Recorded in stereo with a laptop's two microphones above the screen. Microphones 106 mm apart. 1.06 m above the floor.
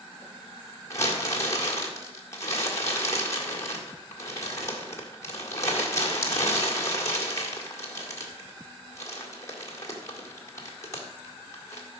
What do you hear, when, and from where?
0.9 s crumpling: 30° left (ahead or behind), 1.8 m